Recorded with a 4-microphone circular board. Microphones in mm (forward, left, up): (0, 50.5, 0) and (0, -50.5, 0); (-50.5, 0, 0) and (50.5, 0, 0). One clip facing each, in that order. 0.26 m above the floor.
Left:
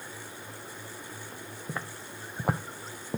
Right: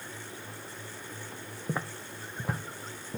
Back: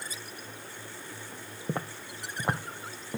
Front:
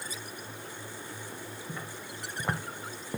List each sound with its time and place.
1.7 s footsteps: 165° right, 0.6 m; by 3.2 s 85° left, 1.1 m